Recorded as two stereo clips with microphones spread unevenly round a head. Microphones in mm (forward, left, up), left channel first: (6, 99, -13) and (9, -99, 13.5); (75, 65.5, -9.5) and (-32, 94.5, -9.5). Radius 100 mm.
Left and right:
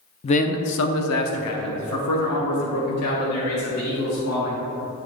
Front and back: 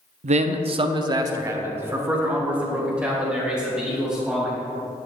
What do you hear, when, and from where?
0.2 s a man speaking: 160° left, 0.6 m; by 4.6 s 80° left, 3 m